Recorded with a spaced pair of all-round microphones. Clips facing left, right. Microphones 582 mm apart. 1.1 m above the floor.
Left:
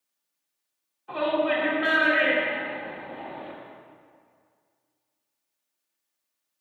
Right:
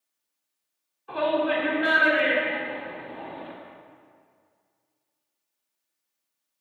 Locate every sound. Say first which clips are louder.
1.1 s a shout: even; 5° left (ahead or behind), 1.3 m